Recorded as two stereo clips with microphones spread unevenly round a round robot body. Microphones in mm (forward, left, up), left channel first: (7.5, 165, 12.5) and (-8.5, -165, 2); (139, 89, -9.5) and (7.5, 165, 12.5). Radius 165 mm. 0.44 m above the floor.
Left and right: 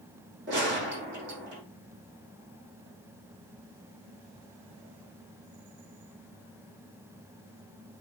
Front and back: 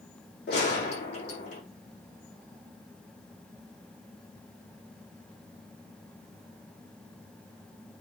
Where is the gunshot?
35° right, 5.5 m.